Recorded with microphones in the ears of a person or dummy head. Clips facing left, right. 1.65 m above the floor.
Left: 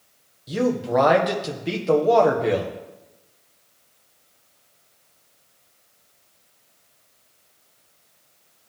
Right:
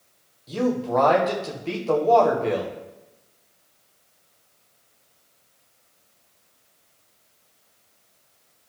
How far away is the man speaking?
About 1.4 m.